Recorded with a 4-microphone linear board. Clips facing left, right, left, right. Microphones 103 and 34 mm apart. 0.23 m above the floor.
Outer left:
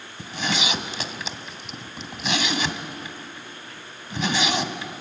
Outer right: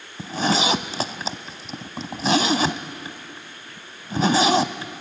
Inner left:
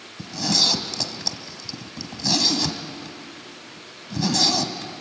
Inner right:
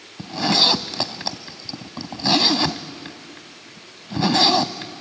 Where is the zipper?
35° right (ahead or behind), 0.8 m.